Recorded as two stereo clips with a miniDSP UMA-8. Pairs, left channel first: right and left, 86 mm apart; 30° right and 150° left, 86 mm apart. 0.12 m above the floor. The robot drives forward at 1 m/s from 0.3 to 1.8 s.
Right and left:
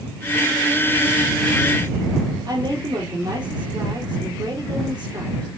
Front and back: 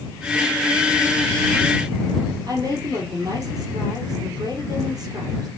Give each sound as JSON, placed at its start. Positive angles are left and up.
{"t": 2.5, "sound": "a woman speaking", "azimuth_deg": 110, "distance_m": 3.5}